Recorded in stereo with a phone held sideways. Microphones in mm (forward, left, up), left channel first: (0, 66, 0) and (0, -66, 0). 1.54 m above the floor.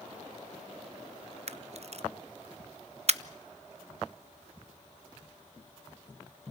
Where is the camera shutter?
55° right (ahead or behind), 0.7 m.